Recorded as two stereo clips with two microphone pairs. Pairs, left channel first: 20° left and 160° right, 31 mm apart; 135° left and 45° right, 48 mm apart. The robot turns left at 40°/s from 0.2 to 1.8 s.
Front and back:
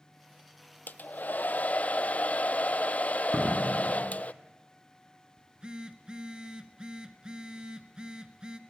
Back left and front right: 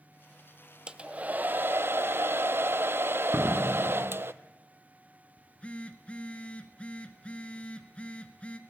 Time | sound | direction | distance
0.9 | a hair dryer | 25° left | 0.6 m
3.3 | a door slam | 70° right | 1.4 m
5.4 | a phone buzzing | 165° left | 1.2 m